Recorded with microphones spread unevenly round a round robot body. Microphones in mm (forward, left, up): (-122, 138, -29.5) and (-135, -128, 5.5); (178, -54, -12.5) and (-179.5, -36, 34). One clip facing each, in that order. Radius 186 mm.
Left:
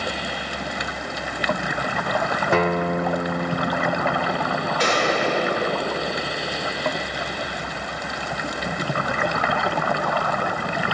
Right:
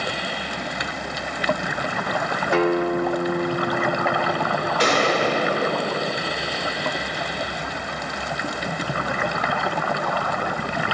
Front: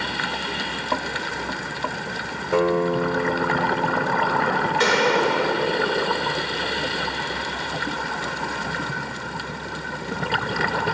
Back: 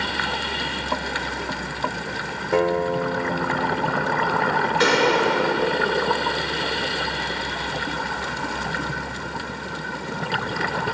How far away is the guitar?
About 0.5 m.